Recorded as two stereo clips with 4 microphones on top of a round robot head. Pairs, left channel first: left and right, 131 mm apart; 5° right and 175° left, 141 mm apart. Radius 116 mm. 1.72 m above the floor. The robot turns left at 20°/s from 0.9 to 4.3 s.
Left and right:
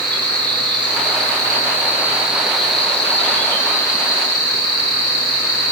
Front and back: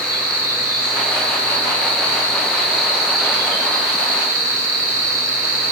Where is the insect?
145° right, 3.5 m; by 5.7 s 145° left, 3.5 m.